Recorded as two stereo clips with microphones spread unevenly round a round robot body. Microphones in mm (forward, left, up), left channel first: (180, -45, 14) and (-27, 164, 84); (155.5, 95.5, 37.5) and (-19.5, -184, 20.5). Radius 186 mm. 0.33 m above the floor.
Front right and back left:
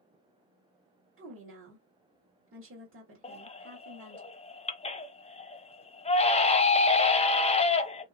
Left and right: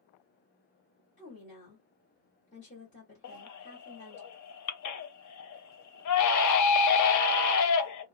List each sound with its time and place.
1.2 s a woman speaking: 110° left, 1.6 m
3.2 s a baby crying: 20° left, 0.7 m